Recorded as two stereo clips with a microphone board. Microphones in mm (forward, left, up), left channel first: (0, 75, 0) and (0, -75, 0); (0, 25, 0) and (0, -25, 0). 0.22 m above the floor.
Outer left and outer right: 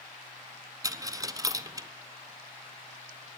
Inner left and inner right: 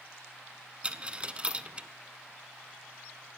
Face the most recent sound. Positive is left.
turn(degrees=-25)  # may be behind; listen again after turning